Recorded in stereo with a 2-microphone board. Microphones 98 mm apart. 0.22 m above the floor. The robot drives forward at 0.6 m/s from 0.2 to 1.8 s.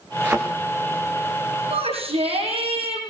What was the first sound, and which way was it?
A thud, 15° right (ahead or behind).